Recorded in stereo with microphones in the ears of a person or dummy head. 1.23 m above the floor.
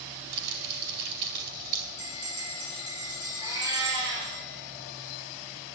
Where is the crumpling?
60° right (ahead or behind), 4 m.